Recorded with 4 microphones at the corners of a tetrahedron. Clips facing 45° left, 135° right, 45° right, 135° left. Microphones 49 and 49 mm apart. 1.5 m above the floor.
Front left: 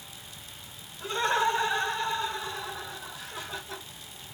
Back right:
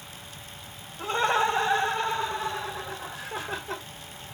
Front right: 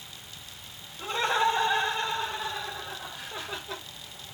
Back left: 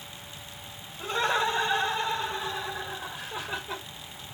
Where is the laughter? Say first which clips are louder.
Back right 2 dB, front right 1 dB; 135° right, 2.5 m; by 3.8 s 150° right, 1.2 m.